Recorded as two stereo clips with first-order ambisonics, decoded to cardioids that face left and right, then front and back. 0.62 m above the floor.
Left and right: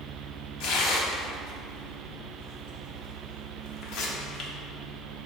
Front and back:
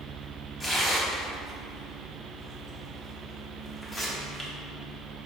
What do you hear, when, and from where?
0.6 s tearing paper: 70° left, 0.6 m